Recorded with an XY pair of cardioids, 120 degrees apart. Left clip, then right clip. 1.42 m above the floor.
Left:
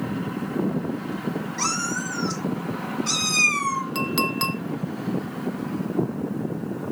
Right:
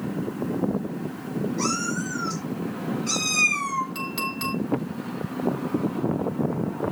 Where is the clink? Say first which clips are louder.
Left 5 dB; 45° left, 1.9 m.